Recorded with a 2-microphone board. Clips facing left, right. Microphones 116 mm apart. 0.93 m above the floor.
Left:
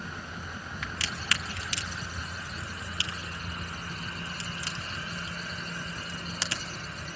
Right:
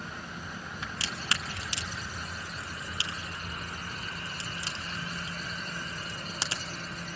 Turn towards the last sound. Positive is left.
turn(degrees=-25)  # may be behind; listen again after turning